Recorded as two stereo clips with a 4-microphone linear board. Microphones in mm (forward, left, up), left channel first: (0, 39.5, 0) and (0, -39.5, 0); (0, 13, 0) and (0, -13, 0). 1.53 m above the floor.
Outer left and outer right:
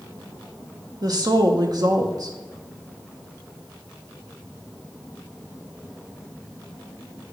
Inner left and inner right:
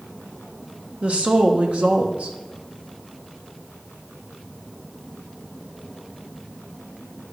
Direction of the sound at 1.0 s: 55° right (ahead or behind).